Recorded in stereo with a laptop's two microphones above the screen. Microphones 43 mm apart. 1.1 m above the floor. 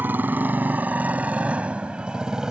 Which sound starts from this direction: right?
A motorcycle, at 0.0 s.